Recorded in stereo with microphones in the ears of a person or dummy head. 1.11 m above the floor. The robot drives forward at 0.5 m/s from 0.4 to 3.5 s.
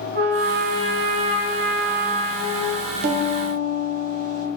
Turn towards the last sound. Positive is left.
turn(degrees=-40)  # may be behind; listen again after turning